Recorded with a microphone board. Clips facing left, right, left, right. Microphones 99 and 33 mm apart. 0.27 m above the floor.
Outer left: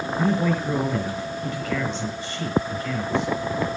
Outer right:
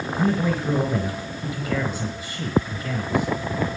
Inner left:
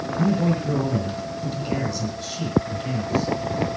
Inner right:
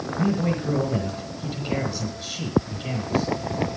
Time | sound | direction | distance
0.2 | a man speaking | 10° right (ahead or behind) | 5 m